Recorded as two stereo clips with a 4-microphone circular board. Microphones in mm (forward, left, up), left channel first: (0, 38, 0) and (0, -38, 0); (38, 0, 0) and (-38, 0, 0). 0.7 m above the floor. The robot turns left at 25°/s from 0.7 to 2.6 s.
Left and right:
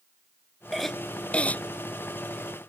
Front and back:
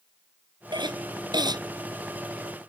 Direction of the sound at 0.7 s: Straight behind.